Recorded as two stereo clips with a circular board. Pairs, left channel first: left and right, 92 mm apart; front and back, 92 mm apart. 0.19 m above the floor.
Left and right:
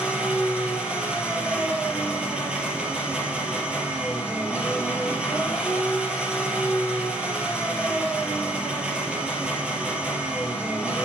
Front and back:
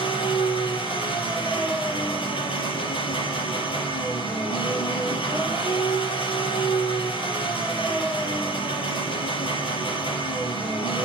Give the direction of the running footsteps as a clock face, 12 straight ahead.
I don't hear running footsteps.